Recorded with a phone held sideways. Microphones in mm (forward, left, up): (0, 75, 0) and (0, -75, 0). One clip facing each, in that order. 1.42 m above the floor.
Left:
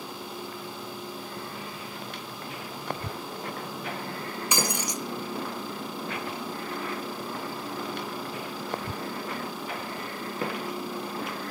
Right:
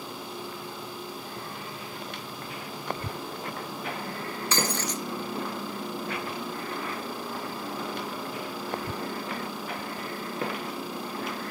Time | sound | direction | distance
4.5 | breaking glass | 15° left (ahead or behind) | 1.4 m